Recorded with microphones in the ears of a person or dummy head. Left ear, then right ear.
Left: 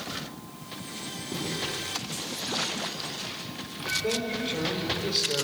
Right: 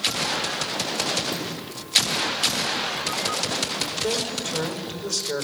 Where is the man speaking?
50° right (ahead or behind), 5 m.